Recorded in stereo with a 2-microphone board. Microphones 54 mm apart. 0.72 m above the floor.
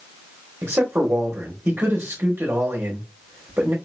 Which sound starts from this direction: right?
A man speaking, at 0.6 s.